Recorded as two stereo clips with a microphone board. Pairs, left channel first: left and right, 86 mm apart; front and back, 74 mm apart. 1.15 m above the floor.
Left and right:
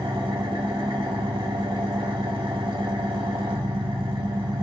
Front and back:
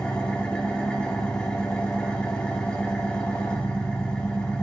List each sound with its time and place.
0.0 s an engine running: 75° right, 2 m